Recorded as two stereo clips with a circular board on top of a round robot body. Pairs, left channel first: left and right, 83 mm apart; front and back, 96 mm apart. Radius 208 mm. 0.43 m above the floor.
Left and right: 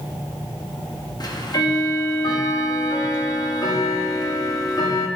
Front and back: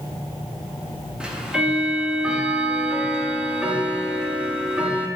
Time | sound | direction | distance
1.2 | ticking | 100° left | 1.0 m